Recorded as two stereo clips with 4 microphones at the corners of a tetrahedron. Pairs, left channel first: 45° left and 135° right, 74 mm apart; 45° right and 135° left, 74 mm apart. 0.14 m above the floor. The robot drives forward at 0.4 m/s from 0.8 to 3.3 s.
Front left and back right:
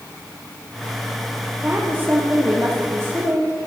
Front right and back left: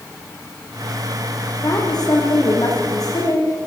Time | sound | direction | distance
1.6 | a woman speaking | 70° right | 6 m